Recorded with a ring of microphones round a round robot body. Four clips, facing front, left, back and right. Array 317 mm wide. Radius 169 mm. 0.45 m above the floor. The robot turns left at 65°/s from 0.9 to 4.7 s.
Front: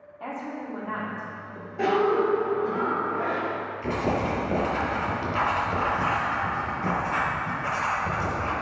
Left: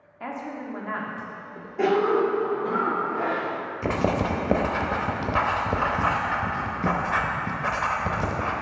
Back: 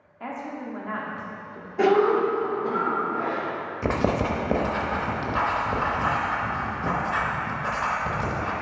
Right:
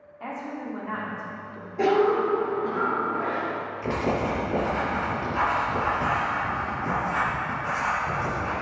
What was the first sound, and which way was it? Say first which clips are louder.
A woman speaking: even, even; 115° left.